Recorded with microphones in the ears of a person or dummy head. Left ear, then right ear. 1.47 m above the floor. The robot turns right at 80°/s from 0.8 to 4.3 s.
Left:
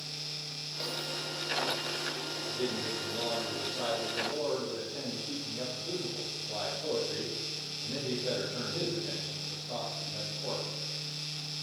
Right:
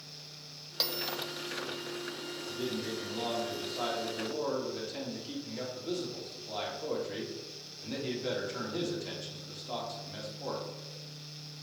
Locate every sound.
0.8 s a bell: 50° right (ahead or behind), 1.2 m; by 1.2 s 25° right (ahead or behind), 1.2 m
2.5 s a man speaking: 140° left, 3 m; by 10.7 s 70° right, 3 m